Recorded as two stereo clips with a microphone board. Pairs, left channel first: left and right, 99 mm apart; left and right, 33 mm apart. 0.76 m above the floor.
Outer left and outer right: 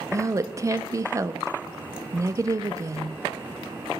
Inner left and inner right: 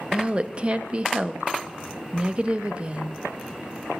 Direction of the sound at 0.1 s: 35° right (ahead or behind).